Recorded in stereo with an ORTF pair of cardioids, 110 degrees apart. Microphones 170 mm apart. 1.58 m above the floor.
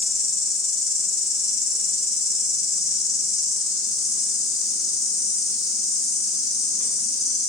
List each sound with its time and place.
0.0 s an insect: 20° left, 1.6 m